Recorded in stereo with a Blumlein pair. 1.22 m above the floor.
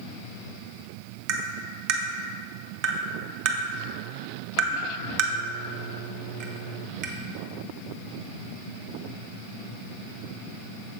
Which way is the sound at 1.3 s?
40° right.